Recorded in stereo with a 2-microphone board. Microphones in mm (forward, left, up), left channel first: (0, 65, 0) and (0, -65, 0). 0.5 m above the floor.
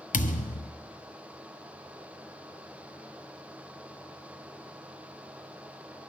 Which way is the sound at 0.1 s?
85° left.